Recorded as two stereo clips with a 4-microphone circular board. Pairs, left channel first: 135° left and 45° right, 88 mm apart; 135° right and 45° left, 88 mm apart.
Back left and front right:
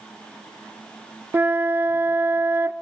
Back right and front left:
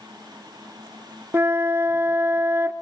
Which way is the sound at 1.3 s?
5° left.